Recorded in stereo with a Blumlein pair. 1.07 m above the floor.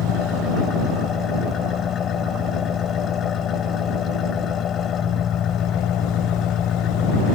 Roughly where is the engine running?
Ahead left.